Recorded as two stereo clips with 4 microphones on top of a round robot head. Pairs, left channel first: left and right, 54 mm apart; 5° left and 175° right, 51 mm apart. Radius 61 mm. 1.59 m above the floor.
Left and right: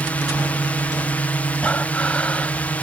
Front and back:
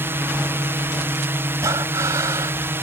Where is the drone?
155° left.